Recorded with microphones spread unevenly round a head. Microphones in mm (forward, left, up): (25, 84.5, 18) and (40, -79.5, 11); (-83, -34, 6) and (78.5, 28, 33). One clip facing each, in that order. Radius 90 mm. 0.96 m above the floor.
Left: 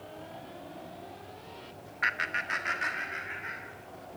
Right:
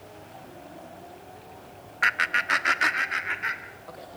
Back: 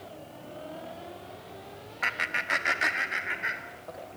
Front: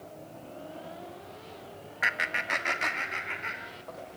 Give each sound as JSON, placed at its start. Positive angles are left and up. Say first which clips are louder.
{"t": 2.0, "sound": "laughter", "louder": "right 6 dB, front 1 dB", "azimuth_deg": -65, "distance_m": 1.2}